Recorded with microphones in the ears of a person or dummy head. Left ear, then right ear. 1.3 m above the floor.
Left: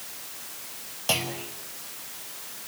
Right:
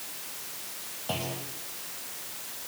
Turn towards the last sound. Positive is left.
turn(degrees=55)  # may be behind; listen again after turning